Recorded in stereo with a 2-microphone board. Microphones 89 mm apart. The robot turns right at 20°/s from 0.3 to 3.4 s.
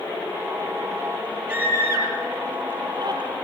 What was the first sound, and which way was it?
A scream, 15° right (ahead or behind).